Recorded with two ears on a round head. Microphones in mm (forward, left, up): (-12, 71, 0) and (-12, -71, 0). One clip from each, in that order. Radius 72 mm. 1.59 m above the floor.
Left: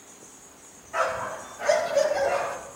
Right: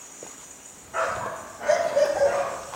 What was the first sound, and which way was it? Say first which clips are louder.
A dog barking: even; 45° left (ahead or behind).